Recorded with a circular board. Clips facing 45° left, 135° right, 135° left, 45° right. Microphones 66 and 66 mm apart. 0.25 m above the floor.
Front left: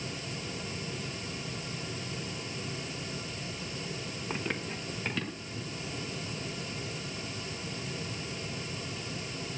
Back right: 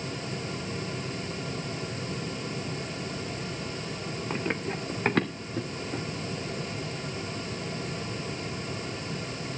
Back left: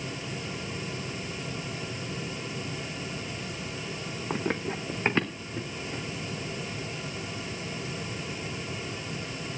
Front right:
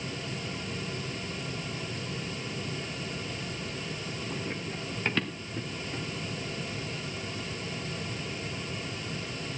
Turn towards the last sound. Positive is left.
turn(degrees=-140)